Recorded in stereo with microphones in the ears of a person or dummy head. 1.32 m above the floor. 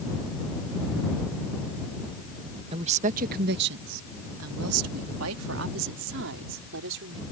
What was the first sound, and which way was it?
A woman speaking, 30° right (ahead or behind).